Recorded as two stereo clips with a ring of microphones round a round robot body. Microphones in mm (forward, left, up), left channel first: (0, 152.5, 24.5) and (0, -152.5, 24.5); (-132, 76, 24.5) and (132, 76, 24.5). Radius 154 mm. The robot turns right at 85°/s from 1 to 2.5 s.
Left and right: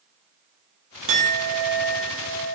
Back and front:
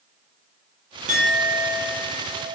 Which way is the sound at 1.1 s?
65° right.